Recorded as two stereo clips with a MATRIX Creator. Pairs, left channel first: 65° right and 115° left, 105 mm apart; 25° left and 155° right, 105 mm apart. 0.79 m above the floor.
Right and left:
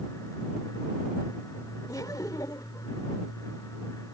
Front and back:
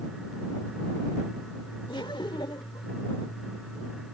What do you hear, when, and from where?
1.9 s laughter: 15° right